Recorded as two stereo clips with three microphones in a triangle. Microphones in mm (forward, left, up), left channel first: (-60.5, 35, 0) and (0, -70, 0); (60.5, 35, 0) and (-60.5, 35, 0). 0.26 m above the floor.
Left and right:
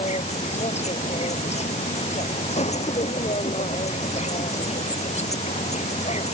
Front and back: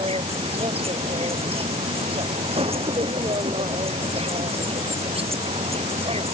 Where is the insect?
145° left.